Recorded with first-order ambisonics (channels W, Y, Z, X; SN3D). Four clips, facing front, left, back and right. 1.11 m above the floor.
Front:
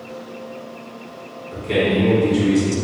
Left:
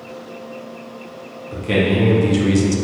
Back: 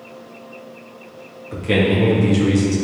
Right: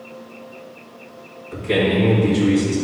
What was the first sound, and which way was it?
A man speaking, 135° left.